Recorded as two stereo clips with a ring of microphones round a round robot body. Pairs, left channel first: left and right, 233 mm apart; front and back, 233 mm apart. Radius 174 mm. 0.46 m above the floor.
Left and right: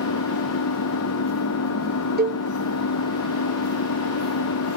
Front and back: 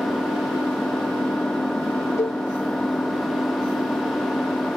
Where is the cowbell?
75° right.